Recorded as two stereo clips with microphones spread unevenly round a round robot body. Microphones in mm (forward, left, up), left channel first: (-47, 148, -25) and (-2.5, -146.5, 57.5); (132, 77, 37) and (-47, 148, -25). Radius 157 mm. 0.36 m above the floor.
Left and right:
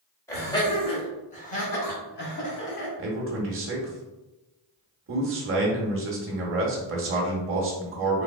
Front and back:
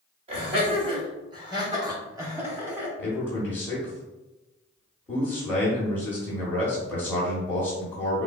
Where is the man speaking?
125° right, 0.9 m.